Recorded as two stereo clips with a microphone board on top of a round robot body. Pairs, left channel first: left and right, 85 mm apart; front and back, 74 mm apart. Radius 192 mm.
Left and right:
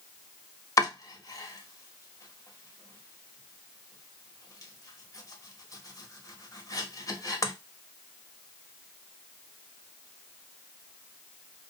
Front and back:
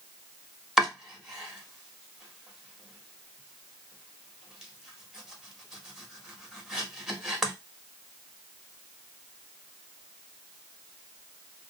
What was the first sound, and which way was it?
Chopping, 105° left.